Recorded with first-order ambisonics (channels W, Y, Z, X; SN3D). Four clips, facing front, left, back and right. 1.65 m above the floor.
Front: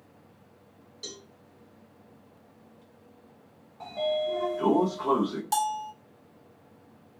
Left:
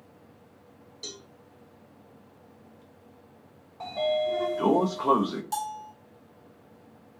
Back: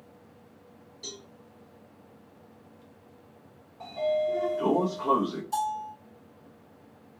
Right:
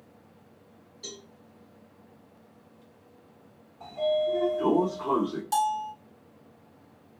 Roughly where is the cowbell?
Ahead left.